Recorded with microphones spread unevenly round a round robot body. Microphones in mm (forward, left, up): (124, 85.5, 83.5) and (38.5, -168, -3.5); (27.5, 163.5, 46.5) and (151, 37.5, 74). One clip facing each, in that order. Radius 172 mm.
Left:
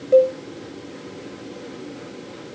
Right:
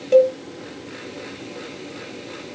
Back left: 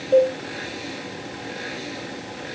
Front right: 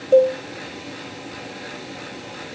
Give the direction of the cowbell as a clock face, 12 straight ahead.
4 o'clock.